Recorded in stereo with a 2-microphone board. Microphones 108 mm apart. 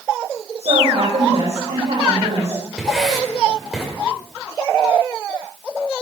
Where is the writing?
Centre (ahead or behind), 5.5 m.